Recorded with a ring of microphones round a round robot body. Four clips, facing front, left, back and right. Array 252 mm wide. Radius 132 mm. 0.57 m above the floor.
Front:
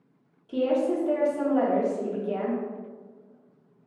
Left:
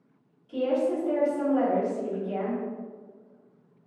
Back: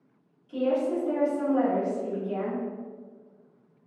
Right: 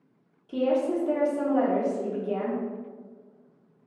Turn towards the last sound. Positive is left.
turn(degrees=-45)